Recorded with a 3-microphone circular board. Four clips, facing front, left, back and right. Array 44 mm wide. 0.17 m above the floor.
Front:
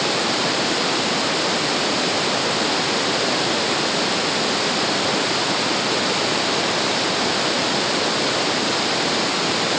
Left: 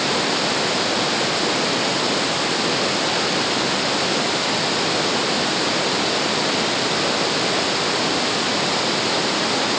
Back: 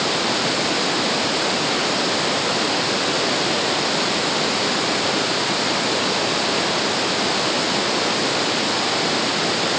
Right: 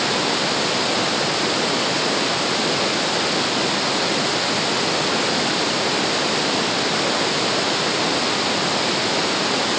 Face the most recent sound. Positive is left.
No sound to turn to.